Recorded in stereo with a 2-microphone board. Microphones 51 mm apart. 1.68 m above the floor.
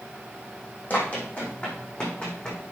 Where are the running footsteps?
35° left (ahead or behind), 4.5 m; by 2.6 s 15° left (ahead or behind), 5 m.